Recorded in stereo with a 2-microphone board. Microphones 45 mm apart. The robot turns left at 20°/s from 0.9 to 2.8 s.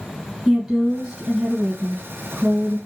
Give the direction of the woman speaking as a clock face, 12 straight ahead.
1 o'clock.